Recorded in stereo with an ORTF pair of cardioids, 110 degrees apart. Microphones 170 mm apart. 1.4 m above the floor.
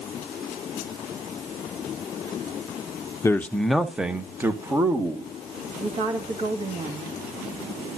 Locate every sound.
3.2 s a man speaking: 20° left, 0.7 m; by 5.3 s 20° right, 2 m
5.8 s a woman speaking: 35° right, 2 m